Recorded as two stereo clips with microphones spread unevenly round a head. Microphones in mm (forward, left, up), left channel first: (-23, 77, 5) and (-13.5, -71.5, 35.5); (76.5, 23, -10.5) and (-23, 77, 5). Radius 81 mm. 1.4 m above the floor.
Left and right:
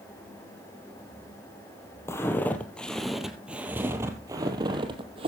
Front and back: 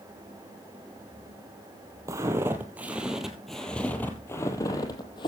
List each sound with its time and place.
2.1 s footsteps: 170° left, 1.7 m; by 5.3 s 80° right, 1.8 m